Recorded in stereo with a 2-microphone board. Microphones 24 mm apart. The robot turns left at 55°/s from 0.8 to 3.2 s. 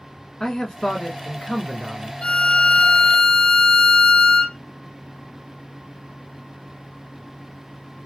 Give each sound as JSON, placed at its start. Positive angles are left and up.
{"t": 0.4, "sound": "a man speaking", "side_deg": 20, "distance_m": 1.1}
{"t": 2.2, "sound": "a violin", "azimuth_deg": 100, "distance_m": 0.9}